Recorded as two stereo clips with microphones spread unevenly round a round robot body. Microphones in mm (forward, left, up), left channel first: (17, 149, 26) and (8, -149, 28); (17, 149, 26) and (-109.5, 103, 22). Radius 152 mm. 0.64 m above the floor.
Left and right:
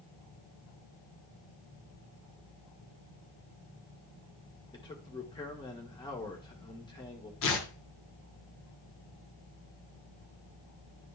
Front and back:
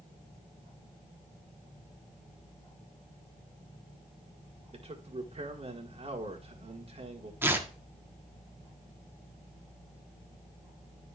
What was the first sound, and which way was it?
A man speaking, 165° left.